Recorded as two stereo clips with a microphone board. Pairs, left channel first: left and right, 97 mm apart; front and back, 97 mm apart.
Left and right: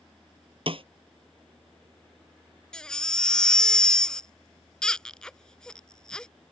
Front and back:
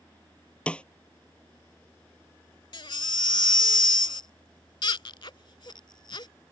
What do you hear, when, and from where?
0.7 s a snare drum: 75° right
2.7 s a baby crying: 10° left